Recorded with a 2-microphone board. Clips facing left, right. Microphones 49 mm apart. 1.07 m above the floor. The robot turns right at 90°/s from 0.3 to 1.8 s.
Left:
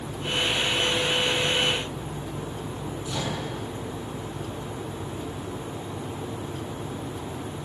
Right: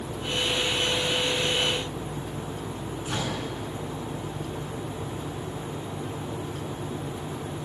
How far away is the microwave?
About 8 m.